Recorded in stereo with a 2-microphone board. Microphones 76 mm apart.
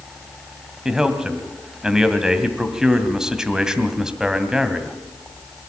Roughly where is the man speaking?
Centre.